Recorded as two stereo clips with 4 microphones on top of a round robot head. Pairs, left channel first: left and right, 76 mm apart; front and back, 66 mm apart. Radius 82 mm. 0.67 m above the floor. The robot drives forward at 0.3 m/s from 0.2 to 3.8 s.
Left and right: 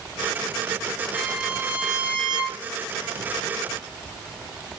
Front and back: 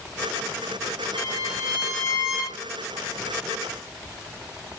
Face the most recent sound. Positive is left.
turn(degrees=-160)